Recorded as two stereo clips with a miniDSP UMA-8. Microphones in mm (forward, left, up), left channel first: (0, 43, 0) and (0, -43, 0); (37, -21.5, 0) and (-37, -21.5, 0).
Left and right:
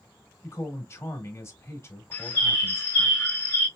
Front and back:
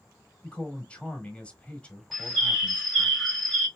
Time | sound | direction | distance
0.4 | a man speaking | 60° left | 1.2 m
2.1 | a bird | 90° left | 1.5 m